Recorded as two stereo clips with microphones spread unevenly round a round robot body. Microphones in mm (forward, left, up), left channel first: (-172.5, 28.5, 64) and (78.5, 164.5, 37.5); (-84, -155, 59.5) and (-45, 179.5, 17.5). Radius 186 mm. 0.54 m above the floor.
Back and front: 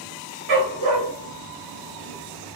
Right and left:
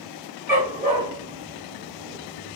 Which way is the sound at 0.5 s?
Straight ahead.